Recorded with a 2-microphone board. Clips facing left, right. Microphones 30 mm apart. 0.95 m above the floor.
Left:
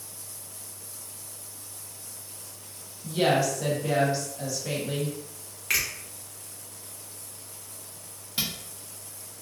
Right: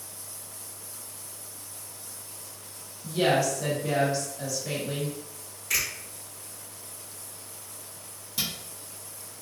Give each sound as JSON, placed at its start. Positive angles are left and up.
{"t": 3.0, "sound": "a woman speaking", "side_deg": 10, "distance_m": 1.0}
{"t": 5.7, "sound": "a finger snap", "side_deg": 55, "distance_m": 1.1}
{"t": 8.4, "sound": "a camera shutter", "side_deg": 35, "distance_m": 0.8}